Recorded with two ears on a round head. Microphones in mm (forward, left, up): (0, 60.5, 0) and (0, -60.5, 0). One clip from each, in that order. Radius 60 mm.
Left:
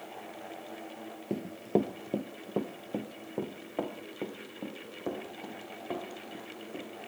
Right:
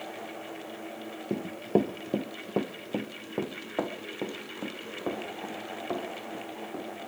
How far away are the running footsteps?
About 0.7 m.